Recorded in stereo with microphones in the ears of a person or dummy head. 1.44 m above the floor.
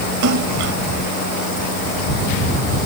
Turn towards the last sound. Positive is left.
turn(degrees=-70)  # may be behind; listen again after turning